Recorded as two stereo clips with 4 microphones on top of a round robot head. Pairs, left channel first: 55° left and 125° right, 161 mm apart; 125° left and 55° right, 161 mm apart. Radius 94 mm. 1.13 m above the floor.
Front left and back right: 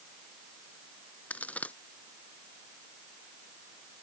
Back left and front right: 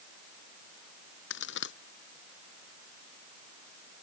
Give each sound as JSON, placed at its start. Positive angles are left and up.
{"t": 1.3, "sound": "a crack", "azimuth_deg": 135}